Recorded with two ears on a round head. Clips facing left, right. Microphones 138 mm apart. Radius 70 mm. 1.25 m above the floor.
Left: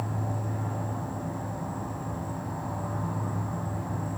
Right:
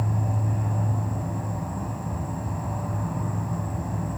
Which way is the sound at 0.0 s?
20° right (ahead or behind).